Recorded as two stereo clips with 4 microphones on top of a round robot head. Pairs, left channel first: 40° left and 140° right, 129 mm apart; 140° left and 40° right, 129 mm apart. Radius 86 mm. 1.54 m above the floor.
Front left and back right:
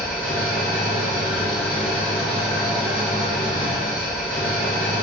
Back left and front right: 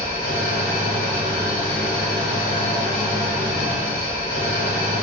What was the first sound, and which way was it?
An engine running, 130° left.